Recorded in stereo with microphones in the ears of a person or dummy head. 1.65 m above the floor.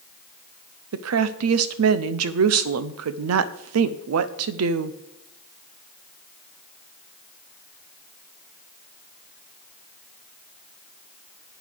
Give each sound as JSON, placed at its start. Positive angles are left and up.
{"t": 0.9, "sound": "a woman speaking", "side_deg": -80, "distance_m": 0.6}